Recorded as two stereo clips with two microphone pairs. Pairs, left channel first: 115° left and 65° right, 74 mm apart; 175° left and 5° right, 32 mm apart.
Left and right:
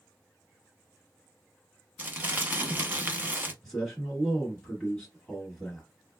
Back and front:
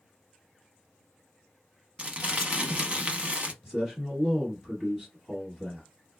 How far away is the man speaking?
About 1.3 m.